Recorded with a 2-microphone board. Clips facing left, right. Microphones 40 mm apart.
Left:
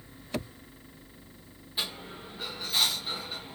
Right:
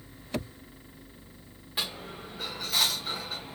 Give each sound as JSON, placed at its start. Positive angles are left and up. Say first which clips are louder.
{"t": 1.8, "sound": "a dropped coin", "louder": "right 1 dB", "side_deg": -75, "distance_m": 4.0}